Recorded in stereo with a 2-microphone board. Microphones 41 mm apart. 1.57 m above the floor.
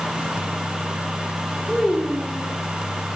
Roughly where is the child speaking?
Centre.